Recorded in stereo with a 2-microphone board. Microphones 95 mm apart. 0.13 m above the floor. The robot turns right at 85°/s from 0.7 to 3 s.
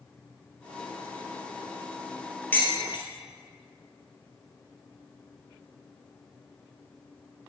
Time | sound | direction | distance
2.5 | dishes clattering | 20° left (ahead or behind) | 2 m